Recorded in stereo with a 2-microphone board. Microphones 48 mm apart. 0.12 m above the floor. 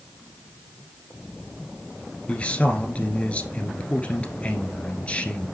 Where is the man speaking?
25° left (ahead or behind), 1.5 m.